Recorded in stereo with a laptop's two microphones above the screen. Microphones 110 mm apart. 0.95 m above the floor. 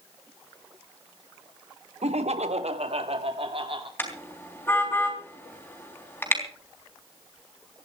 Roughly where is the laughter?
Right.